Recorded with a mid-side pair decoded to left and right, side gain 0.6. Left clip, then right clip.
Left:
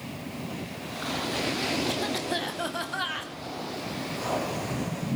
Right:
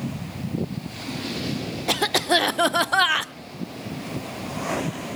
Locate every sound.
1.9 s a cough: 55° right, 0.5 m